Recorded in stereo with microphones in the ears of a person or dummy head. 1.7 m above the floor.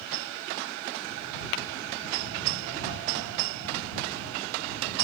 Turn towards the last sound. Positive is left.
turn(degrees=60)  # may be behind; listen again after turning